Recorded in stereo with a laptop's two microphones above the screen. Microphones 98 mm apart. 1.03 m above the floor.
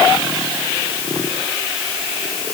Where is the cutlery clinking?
No cutlery clinking in this recording.